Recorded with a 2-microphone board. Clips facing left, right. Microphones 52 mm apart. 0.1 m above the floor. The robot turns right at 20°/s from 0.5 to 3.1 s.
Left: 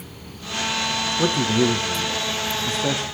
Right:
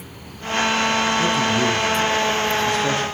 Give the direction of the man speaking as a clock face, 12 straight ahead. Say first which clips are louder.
Right 1 dB; 8 o'clock.